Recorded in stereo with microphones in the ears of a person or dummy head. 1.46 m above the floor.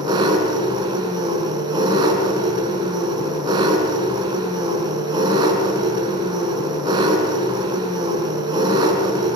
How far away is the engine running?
About 5 m.